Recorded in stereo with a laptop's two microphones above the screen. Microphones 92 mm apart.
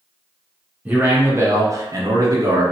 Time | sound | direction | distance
0.8 | a man speaking | 15° right (ahead or behind) | 0.6 m